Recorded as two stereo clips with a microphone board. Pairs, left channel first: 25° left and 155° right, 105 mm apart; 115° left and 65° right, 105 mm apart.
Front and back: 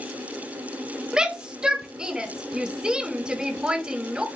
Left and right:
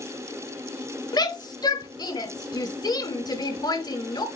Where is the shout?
125° left, 1.2 m.